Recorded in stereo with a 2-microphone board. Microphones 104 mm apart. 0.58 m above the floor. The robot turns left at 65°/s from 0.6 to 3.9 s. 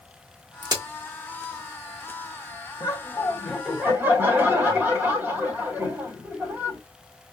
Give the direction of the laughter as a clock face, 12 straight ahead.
10 o'clock.